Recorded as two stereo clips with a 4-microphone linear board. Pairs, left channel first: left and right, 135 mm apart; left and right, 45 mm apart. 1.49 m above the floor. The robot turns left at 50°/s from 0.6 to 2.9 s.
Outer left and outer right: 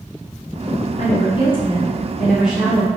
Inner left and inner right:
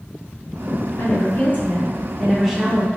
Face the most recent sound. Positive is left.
turn(degrees=-25)